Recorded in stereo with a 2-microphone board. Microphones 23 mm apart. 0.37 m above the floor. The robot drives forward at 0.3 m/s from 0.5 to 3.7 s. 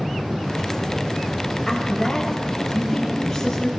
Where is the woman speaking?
20° left (ahead or behind), 1.4 m; by 3.7 s 15° left (ahead or behind), 1.9 m.